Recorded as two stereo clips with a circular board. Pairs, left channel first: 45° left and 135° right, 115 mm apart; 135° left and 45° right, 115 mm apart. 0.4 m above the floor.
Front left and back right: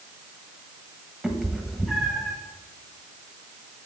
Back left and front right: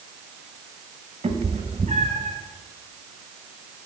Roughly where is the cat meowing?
Ahead right.